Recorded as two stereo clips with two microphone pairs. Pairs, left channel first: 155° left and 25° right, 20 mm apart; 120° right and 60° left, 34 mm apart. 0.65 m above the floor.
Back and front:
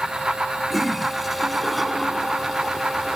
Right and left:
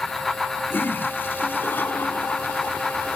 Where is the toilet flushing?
110° right.